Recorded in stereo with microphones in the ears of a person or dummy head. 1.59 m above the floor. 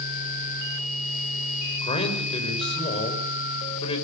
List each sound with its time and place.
1.8 s a man speaking: 35° left (ahead or behind), 6 m